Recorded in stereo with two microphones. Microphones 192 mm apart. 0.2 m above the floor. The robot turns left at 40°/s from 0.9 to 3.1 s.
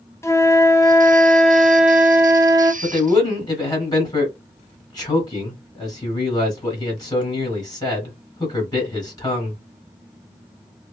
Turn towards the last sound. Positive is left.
turn(degrees=20)  # may be behind; listen again after turning